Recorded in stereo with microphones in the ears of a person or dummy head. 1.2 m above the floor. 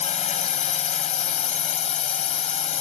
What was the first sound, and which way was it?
A drone, 40° left (ahead or behind).